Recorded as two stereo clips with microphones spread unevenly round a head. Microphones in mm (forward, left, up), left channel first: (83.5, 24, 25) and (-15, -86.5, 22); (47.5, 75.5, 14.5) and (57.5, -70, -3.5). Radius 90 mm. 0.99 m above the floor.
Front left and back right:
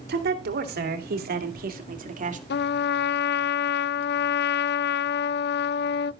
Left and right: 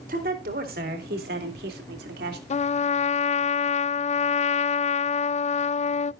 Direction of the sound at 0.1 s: 130° right.